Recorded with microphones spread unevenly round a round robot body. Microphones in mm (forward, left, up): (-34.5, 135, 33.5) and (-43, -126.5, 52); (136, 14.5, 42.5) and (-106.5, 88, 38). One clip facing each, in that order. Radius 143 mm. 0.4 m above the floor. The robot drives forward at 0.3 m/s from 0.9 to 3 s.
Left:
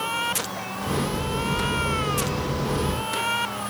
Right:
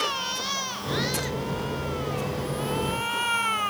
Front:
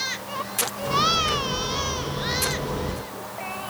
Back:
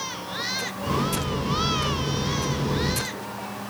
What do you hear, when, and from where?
Only background noise.